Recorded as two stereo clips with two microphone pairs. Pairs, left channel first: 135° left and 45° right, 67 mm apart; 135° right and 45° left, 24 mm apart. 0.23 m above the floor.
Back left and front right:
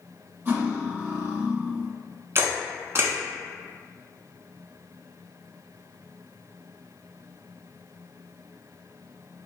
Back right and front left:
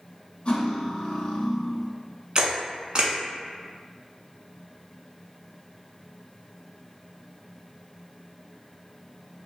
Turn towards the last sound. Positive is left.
turn(degrees=-5)